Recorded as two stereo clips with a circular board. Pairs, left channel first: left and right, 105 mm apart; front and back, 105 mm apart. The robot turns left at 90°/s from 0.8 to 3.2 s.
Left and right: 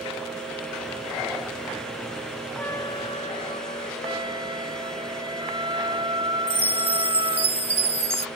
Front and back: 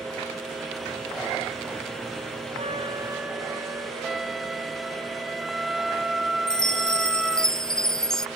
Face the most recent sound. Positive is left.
turn(degrees=-85)